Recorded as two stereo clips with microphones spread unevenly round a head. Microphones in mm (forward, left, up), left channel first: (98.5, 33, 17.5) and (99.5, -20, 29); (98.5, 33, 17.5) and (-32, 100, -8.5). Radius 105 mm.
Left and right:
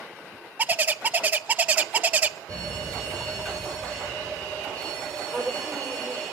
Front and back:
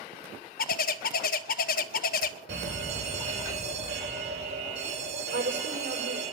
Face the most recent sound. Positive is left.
turn(degrees=175)